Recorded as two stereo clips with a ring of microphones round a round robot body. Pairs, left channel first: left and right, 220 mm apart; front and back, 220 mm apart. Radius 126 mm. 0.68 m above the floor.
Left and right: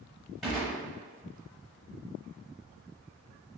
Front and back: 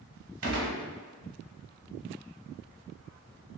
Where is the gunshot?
Straight behind, 0.8 m.